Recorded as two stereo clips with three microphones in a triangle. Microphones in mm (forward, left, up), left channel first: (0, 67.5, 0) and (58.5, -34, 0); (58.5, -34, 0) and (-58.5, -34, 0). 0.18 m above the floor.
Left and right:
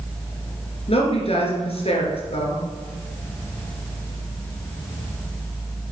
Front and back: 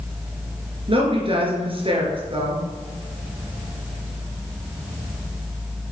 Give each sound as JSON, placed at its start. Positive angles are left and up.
{"t": 0.9, "sound": "a woman speaking", "azimuth_deg": 145, "distance_m": 2.5}